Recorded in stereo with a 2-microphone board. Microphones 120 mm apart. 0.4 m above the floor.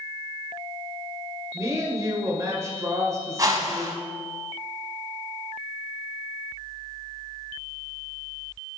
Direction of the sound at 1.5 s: 25° right (ahead or behind).